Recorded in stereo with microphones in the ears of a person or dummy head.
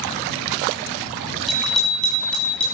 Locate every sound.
1.5 s a bicycle bell: centre (ahead or behind), 5.5 m; by 2.6 s 10° left (ahead or behind), 5.5 m